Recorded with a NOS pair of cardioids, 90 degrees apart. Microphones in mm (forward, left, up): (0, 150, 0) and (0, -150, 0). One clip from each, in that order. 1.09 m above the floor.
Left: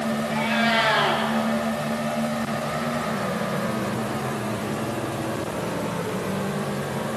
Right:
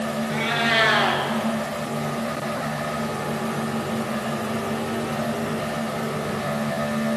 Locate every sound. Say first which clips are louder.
0.3 s a cat meowing: right 1 dB; 50° right, 5 m